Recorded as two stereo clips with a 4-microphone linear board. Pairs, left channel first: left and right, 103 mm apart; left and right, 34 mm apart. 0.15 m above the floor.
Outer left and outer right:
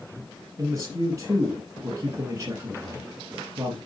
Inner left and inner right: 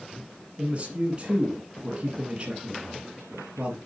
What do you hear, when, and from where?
0.6 s a man speaking: 30° right (ahead or behind), 1.5 m